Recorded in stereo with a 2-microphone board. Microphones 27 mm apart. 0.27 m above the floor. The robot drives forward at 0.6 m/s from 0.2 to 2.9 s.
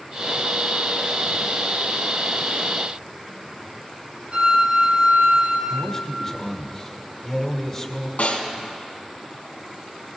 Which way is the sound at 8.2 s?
60° left (ahead or behind).